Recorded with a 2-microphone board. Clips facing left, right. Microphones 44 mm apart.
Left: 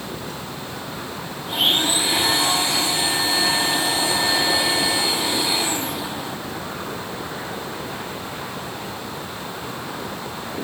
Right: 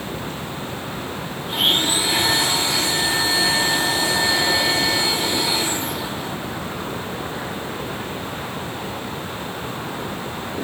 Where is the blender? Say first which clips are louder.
Even; 10° left (ahead or behind), 6.5 m.